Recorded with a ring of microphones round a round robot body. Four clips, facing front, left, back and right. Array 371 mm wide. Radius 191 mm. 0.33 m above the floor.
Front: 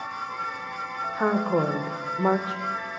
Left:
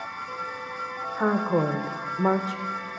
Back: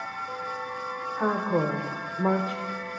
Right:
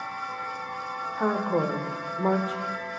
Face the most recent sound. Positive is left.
turn(degrees=35)